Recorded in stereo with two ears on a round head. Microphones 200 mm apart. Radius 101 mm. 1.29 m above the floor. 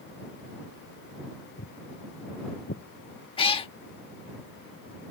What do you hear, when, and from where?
1.6 s footsteps: 45° left (ahead or behind); by 2.8 s 40° left (ahead or behind)
3.4 s a cat meowing: 25° left (ahead or behind)